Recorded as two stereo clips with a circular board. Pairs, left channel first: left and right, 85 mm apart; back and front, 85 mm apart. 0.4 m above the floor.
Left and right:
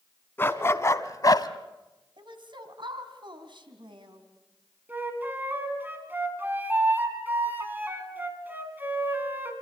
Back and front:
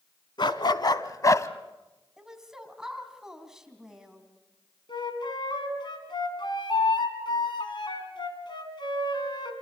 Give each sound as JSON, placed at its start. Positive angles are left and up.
{"t": 0.4, "sound": "a dog barking", "azimuth_deg": 155, "distance_m": 1.3}
{"t": 2.2, "sound": "a woman speaking", "azimuth_deg": -85, "distance_m": 3.0}
{"t": 4.9, "sound": "a flute", "azimuth_deg": -155, "distance_m": 3.0}